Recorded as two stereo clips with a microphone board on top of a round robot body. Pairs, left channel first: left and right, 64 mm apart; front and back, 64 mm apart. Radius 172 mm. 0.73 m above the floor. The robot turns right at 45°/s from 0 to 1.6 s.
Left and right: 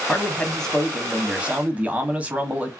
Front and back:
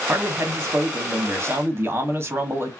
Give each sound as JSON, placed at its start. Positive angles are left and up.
{"t": 0.1, "sound": "a man speaking", "azimuth_deg": 140, "distance_m": 1.0}